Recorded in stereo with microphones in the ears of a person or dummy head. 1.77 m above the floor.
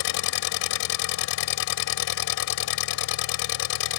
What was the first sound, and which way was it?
An engine running, 75° left (ahead or behind).